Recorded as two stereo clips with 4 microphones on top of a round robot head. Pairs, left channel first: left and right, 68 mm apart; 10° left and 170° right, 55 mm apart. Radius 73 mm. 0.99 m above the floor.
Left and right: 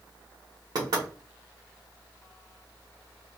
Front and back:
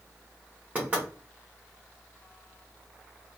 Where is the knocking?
105° right, 1.2 m.